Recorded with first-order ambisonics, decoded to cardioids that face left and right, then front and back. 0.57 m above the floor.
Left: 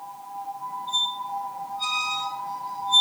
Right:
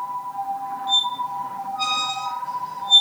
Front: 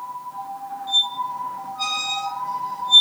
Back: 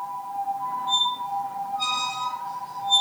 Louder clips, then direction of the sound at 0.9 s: Right 5 dB, front 4 dB; 60° right.